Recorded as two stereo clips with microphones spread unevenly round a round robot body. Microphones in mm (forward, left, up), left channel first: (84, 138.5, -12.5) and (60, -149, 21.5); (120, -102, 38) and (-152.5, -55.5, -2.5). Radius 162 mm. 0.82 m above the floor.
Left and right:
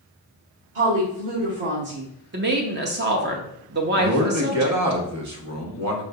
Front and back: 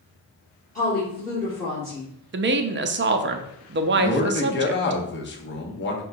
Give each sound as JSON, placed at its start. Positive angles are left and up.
{"t": 0.8, "sound": "a woman speaking", "azimuth_deg": -75, "distance_m": 2.0}
{"t": 2.3, "sound": "a woman speaking", "azimuth_deg": -155, "distance_m": 0.6}
{"t": 4.0, "sound": "a man speaking", "azimuth_deg": -65, "distance_m": 1.1}